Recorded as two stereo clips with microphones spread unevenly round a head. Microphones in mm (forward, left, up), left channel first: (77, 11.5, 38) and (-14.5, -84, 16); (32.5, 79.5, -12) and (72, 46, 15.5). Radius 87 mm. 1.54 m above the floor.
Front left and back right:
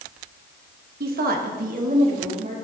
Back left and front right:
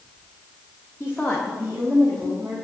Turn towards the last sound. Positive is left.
turn(degrees=-105)